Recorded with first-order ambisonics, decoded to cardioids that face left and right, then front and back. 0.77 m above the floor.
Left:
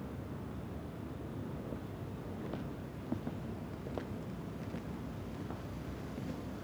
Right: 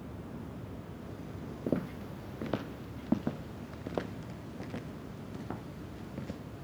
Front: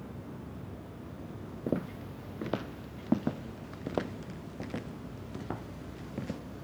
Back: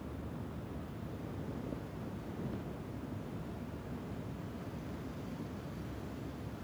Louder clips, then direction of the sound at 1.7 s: Right 9 dB, front 9 dB; 45° right.